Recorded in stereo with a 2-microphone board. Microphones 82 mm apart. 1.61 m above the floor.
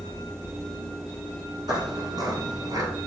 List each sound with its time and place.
1.7 s footsteps: 55° right (ahead or behind), 2.5 m; by 2.9 s 45° right (ahead or behind), 2 m